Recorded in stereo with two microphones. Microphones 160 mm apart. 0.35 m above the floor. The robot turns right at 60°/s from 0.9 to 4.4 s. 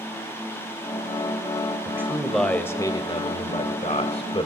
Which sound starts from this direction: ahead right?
A man speaking, at 1.9 s.